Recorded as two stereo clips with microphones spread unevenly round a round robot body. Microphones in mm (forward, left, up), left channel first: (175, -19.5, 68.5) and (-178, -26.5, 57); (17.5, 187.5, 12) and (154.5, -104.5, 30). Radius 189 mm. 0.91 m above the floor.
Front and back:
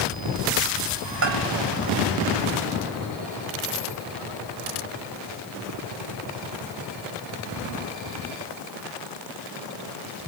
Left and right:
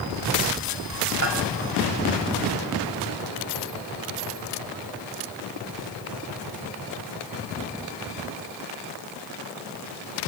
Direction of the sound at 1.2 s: 125° right.